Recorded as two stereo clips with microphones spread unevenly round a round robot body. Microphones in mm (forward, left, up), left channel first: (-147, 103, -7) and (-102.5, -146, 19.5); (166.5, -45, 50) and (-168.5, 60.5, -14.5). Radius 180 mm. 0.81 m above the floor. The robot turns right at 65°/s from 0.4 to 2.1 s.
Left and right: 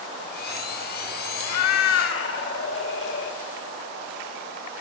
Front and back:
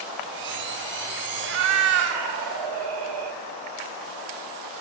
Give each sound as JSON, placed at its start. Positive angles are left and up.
{"t": 1.4, "sound": "a cat meowing", "azimuth_deg": 95, "distance_m": 0.8}